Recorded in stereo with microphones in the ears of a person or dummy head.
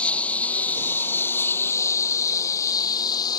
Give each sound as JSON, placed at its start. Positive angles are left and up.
{"t": 0.0, "sound": "a lawn mower", "side_deg": 5}